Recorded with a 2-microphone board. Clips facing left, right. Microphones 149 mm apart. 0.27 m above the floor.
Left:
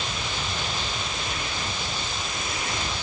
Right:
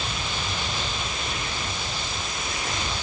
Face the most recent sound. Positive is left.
No sound to turn to.